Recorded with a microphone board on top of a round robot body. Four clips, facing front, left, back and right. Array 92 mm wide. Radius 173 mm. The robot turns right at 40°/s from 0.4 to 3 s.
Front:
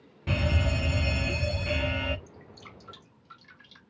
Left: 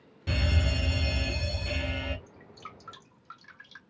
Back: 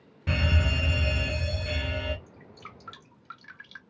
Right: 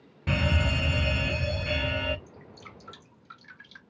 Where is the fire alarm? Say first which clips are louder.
Right 4 dB, even; 100° right, 1.6 m; by 2.2 s 30° right, 1.6 m.